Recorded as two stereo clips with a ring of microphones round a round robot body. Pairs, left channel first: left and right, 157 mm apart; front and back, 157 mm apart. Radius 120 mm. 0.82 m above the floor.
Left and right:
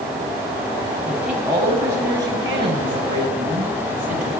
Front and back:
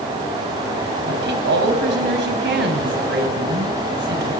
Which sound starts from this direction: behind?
A woman speaking, at 1.1 s.